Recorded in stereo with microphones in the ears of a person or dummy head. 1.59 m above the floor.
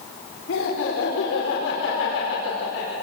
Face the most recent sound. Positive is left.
turn(degrees=70)  # may be behind; listen again after turning